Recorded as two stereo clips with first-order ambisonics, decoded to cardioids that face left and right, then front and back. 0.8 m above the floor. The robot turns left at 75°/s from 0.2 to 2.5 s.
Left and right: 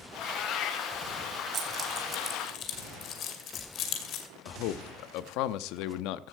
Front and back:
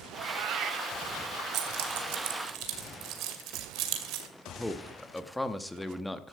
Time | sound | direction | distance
0.1 | a cat meowing | 165° left | 1.3 m
1.5 | keys jangling | 145° right | 2.5 m
4.5 | a man speaking | 85° left | 0.9 m